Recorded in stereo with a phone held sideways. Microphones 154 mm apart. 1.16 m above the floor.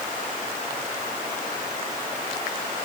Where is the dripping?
No dripping in this recording.